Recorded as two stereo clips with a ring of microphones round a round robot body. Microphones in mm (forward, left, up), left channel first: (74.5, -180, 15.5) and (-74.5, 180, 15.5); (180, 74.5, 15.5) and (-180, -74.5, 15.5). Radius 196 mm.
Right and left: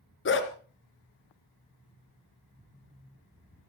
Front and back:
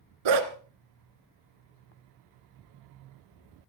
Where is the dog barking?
130° right, 1.9 m.